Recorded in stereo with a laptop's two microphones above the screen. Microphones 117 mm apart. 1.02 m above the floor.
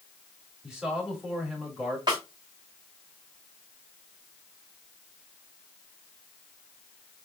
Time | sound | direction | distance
0.6 | a man speaking | 5° right (ahead or behind) | 1.9 m
2.1 | a snare drum | 40° right (ahead or behind) | 3 m